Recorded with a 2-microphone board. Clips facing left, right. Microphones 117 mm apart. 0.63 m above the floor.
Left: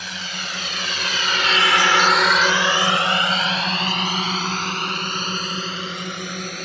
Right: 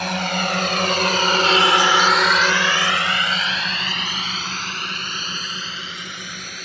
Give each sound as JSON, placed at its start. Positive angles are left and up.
{"t": 0.0, "sound": "a drone", "side_deg": -75}